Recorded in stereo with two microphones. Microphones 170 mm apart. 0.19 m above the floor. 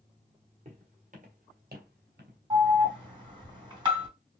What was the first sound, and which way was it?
Footsteps, 40° right (ahead or behind).